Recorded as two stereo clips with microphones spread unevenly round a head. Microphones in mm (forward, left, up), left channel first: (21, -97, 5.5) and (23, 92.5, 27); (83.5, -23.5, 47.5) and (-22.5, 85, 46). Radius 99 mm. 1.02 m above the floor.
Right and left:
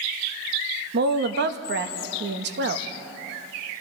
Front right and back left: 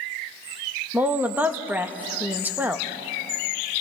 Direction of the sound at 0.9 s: 55° left.